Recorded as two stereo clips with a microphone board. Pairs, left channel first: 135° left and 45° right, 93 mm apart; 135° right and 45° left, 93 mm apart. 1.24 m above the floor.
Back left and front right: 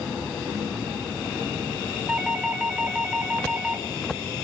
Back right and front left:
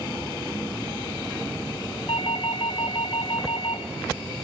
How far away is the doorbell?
About 5.5 m.